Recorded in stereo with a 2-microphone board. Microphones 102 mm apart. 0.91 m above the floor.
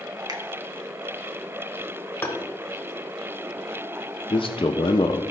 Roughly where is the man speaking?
Left.